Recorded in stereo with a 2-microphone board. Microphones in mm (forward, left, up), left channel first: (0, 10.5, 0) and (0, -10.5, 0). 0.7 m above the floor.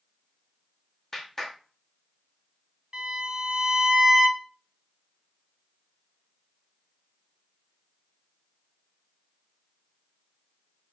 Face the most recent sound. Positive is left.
turn(degrees=-30)  # may be behind; listen again after turning